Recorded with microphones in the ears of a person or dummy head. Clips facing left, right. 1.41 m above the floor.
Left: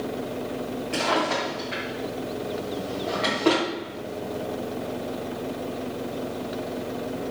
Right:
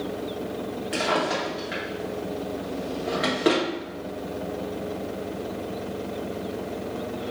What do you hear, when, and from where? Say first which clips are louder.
0.9 s a drawer: even; 10° right (ahead or behind), 1.0 m